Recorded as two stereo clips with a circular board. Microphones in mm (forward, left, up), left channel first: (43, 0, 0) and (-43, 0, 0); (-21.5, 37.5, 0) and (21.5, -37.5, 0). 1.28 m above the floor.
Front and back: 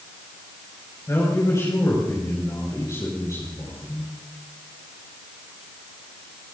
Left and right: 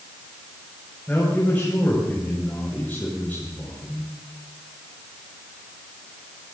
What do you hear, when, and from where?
1.1 s a man speaking: 50° left, 5.5 m